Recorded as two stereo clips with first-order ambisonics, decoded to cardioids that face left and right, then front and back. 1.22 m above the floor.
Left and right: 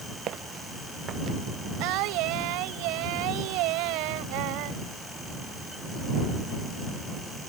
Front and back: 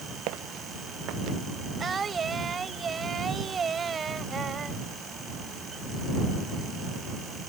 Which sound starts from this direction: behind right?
Footsteps, at 0.3 s.